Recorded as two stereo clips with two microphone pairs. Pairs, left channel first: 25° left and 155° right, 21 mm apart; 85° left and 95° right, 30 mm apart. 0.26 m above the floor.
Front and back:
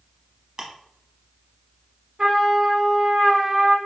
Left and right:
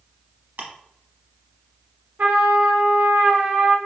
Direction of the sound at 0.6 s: 110° right.